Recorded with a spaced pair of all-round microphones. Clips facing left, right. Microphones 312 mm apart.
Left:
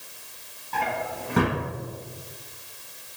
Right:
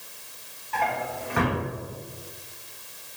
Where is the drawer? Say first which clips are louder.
Even; 45° left (ahead or behind), 1.1 m.